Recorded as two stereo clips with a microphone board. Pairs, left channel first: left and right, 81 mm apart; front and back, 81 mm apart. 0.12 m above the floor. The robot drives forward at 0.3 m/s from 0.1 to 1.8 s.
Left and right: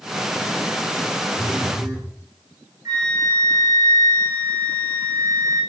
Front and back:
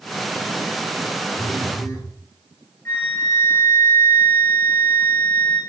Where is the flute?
50° right, 1.5 m.